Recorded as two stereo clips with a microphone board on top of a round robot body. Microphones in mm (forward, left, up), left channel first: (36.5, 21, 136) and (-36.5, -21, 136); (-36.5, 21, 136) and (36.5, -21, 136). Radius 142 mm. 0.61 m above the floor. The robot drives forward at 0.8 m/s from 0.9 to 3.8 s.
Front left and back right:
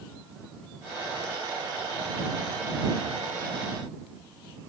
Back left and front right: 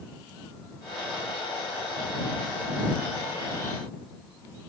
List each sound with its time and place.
Only background noise.